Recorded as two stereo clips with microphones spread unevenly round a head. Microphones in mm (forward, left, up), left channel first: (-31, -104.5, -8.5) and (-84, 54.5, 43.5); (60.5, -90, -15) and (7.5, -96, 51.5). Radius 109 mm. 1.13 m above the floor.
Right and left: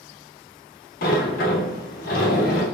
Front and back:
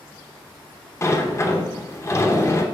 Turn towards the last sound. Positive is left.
turn(degrees=-25)